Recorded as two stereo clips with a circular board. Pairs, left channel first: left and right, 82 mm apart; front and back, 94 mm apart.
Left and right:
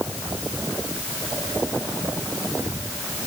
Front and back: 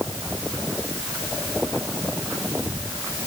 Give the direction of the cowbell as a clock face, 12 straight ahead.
No cowbell in this recording.